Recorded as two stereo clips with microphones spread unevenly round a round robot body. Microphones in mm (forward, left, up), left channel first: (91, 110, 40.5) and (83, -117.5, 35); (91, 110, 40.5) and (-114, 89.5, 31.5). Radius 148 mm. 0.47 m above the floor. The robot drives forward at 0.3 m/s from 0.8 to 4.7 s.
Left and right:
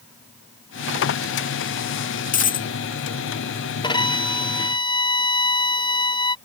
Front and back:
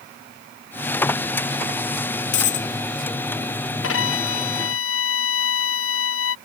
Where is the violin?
20° left.